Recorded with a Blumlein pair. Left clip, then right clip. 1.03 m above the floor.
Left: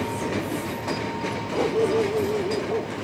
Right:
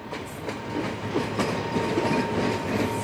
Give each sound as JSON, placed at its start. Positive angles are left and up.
{"t": 1.5, "sound": "a dog barking", "azimuth_deg": 55}